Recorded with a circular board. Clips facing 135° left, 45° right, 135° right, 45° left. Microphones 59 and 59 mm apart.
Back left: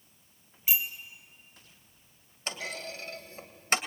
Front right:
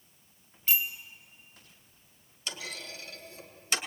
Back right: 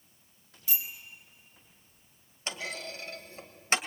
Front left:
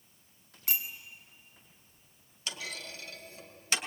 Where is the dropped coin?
No dropped coin in this recording.